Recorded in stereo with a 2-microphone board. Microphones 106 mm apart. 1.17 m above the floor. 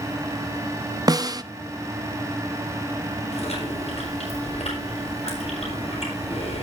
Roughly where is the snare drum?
Right.